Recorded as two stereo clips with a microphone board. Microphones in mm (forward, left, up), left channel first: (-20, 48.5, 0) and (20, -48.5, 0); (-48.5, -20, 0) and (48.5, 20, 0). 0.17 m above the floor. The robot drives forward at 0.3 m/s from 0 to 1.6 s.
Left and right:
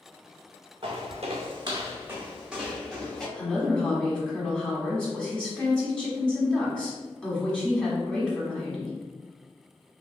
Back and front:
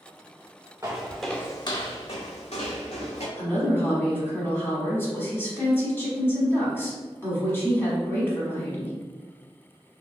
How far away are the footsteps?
About 0.9 m.